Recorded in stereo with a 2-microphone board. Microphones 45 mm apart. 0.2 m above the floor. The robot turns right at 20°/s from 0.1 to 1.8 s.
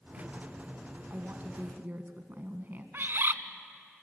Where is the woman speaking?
40° right (ahead or behind), 1.6 m; by 2.8 s 45° right (ahead or behind), 1.6 m.